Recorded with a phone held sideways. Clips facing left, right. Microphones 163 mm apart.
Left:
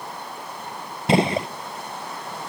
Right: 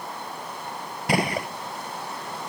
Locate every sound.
1.1 s a gunshot: 25° left (ahead or behind), 0.5 m